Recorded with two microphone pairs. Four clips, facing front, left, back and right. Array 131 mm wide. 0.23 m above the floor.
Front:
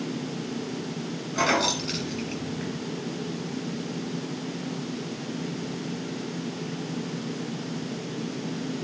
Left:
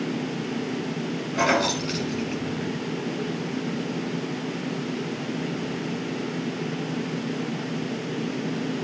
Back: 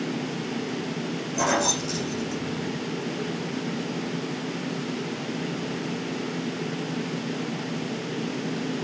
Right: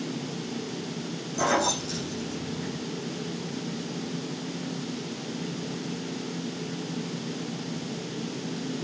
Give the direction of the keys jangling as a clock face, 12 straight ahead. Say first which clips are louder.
Left 2 dB, even; 11 o'clock.